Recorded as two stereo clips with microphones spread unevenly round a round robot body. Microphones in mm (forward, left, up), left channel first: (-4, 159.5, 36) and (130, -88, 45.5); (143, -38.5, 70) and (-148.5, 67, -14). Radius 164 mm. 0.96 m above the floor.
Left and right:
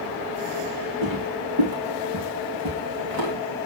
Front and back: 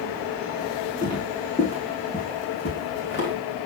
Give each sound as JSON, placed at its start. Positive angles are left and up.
{"t": 1.0, "sound": "footsteps", "azimuth_deg": -95, "distance_m": 3.0}